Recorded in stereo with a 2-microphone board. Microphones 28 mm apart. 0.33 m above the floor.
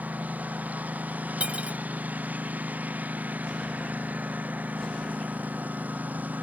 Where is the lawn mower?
75° right (ahead or behind); by 6.4 s 80° right.